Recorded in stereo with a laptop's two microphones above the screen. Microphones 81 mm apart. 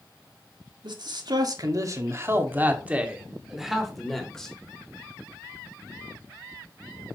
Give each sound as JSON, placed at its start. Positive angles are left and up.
{"t": 0.8, "sound": "a man speaking", "side_deg": -70, "distance_m": 1.8}